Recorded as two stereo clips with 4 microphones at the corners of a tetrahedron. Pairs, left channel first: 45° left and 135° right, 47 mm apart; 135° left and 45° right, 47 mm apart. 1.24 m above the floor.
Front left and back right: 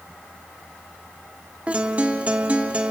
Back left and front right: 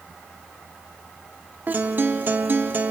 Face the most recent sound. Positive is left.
turn(degrees=-80)